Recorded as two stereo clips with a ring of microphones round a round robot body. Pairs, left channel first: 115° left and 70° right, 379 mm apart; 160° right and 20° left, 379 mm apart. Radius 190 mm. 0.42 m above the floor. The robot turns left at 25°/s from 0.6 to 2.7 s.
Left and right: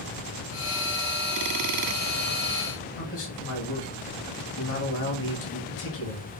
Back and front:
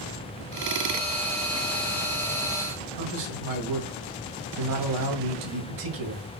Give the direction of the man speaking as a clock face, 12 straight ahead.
10 o'clock.